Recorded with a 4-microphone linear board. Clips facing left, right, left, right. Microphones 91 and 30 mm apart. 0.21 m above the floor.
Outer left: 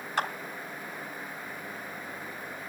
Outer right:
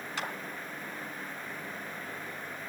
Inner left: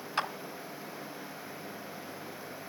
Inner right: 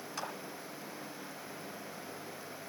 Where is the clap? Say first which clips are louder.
Outer left 7 dB, inner left 9 dB; 45° left (ahead or behind), 2 m.